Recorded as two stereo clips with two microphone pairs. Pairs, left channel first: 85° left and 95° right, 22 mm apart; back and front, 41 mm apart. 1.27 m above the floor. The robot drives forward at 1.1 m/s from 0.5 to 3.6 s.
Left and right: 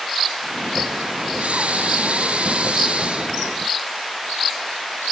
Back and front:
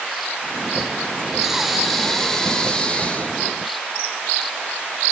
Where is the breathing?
80° right, 3 m; by 3.6 s 125° right, 3.5 m.